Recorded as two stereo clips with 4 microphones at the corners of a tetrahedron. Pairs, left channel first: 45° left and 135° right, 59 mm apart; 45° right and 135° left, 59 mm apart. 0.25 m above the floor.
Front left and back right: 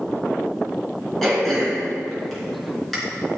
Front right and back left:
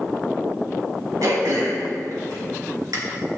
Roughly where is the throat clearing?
Behind left.